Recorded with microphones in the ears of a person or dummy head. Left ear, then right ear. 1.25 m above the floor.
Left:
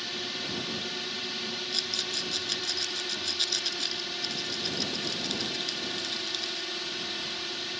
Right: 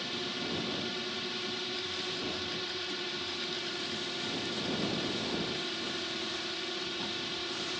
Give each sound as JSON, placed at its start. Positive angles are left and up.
{"t": 0.0, "sound": "a drone", "side_deg": 15}
{"t": 1.7, "sound": "a rattle", "side_deg": 85}